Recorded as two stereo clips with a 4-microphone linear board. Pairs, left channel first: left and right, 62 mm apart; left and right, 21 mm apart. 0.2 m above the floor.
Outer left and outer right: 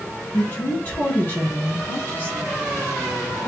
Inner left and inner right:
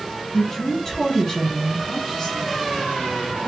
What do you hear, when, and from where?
0.3 s a woman speaking: 30° left (ahead or behind), 2.0 m; by 3.5 s 40° left (ahead or behind), 2.5 m